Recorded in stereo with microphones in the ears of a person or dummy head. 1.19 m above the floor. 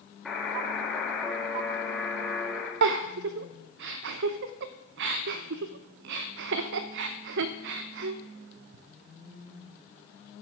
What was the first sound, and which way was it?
A buzzer, 10° left (ahead or behind).